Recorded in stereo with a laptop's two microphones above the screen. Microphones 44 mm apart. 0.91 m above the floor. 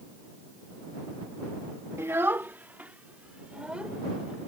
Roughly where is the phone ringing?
No phone ringing in this recording.